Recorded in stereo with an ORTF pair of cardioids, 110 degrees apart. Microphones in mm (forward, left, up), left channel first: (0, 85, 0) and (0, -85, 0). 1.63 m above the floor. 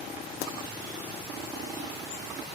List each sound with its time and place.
0.4 s a pop: 70° left